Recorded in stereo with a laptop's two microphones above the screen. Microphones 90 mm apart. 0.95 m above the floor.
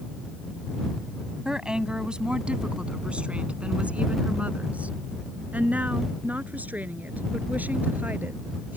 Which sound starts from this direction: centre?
A woman speaking, at 1.4 s.